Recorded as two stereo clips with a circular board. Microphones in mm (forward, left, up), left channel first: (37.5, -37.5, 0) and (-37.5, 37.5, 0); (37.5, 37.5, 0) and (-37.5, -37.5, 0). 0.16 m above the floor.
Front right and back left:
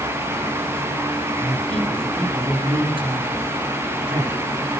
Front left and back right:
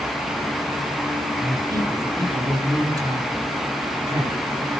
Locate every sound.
1.4 s a man speaking: 170° left, 5.5 m